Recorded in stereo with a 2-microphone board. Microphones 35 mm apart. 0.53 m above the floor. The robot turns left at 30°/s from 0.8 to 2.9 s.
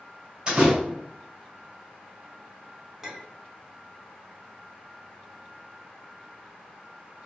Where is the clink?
5° right (ahead or behind), 0.8 m.